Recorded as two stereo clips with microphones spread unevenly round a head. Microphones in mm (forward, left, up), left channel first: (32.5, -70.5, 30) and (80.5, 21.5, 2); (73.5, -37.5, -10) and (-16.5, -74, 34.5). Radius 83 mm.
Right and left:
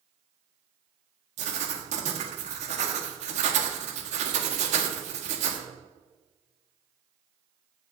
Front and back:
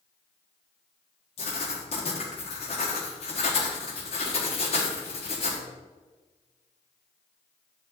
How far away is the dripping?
I don't hear dripping.